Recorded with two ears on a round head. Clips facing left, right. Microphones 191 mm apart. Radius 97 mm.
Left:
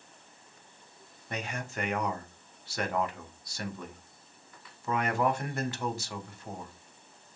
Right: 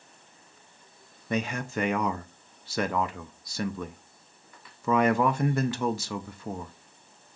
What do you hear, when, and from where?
1.3 s a man speaking: 60° right (ahead or behind), 0.5 m